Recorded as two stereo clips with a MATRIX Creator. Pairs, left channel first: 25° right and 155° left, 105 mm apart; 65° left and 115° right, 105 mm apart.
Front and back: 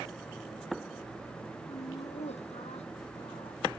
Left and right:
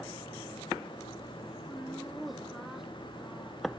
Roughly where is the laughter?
Ahead.